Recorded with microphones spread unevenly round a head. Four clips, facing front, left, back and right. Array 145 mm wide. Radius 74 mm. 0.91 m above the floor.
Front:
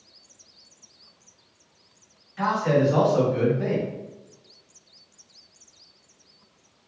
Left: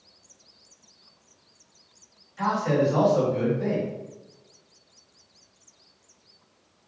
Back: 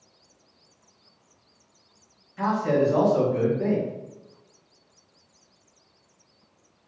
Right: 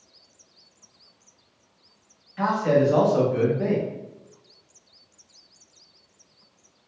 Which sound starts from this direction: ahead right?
A man speaking, at 2.4 s.